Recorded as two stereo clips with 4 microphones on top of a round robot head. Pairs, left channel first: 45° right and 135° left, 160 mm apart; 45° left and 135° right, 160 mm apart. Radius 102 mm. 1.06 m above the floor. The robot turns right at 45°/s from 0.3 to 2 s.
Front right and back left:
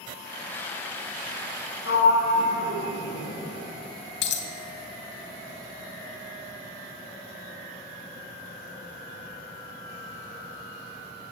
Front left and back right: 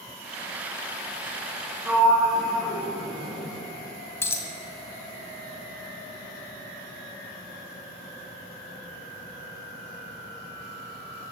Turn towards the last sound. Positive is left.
turn(degrees=-30)